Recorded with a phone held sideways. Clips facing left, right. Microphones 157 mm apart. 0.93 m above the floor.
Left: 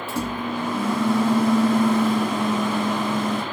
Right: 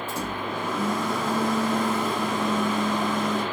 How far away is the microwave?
About 1.2 m.